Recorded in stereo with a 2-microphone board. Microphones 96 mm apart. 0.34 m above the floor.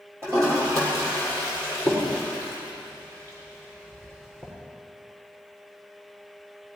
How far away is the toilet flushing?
About 6 m.